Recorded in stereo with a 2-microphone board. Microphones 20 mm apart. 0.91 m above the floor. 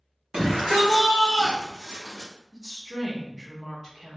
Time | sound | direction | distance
0.3 | a shout | 40° right (ahead or behind) | 1.3 m
2.5 | a woman speaking | 25° right (ahead or behind) | 1.1 m